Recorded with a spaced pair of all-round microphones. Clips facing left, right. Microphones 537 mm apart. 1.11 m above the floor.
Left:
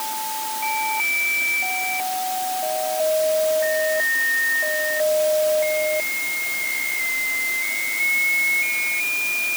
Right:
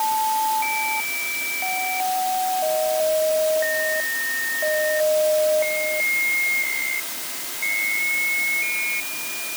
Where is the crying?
I don't hear crying.